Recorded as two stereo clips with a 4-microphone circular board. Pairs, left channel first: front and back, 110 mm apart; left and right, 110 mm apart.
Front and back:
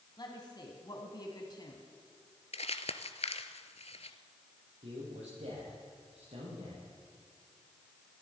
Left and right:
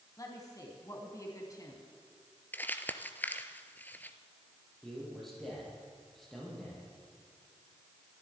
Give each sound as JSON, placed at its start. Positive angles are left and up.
{"t": 0.2, "sound": "a woman speaking", "azimuth_deg": 40, "distance_m": 1.9}
{"t": 2.5, "sound": "crumpling", "azimuth_deg": 15, "distance_m": 0.9}
{"t": 4.8, "sound": "a man speaking", "azimuth_deg": 180, "distance_m": 8.0}